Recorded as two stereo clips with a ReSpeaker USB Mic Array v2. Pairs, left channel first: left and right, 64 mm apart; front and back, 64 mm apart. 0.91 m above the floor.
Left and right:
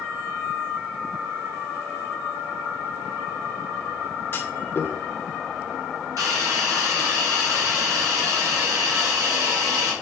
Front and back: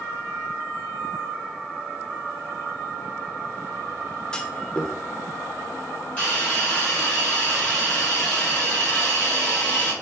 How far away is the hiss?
About 2.5 m.